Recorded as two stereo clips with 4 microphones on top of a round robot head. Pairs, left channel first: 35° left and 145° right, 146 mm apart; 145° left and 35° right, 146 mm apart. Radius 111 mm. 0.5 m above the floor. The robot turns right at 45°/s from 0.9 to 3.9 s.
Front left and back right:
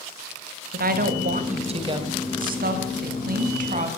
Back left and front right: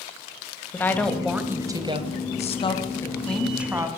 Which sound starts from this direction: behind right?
A woman speaking, at 0.7 s.